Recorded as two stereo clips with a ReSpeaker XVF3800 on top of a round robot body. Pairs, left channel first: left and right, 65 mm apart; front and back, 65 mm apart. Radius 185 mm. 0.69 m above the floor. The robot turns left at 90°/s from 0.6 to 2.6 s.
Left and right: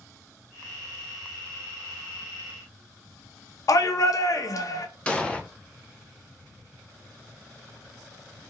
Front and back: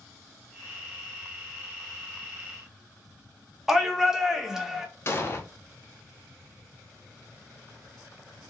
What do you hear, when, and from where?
3.7 s a shout: 100° left, 0.7 m
5.1 s an explosion: 25° left, 0.7 m